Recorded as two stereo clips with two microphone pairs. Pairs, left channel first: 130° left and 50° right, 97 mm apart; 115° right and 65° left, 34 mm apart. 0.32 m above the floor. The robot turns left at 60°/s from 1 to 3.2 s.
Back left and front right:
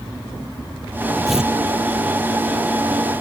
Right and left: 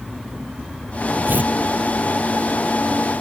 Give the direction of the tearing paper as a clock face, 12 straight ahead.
11 o'clock.